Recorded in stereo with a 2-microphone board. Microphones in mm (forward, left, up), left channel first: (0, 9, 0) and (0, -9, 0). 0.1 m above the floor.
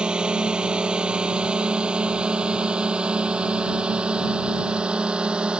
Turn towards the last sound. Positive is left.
turn(degrees=-70)  # may be behind; listen again after turning